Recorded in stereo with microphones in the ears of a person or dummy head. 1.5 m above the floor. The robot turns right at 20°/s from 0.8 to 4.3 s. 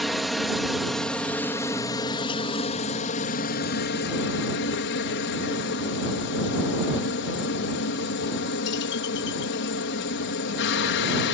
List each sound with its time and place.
0.0 s a helicopter: straight ahead; by 11.3 s 70° left